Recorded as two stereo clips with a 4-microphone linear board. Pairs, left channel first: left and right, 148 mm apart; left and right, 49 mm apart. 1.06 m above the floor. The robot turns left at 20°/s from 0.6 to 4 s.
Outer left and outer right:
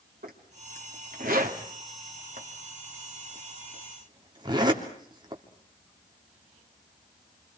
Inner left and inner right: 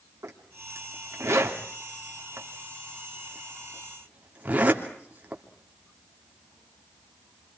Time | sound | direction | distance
0.2 | a zipper | 75° right (ahead or behind) | 3 m